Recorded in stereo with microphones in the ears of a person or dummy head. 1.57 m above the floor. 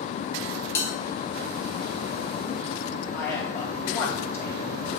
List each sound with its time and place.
0.8 s a bell: 15° left (ahead or behind), 2.5 m
3.1 s a man speaking: 15° left (ahead or behind), 3.5 m